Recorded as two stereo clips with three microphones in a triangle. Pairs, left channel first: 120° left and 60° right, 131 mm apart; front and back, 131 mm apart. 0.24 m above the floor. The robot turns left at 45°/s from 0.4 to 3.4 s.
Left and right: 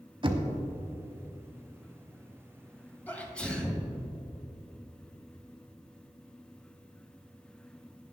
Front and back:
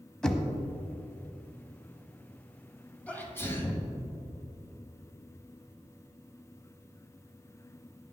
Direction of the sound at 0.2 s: 85° right.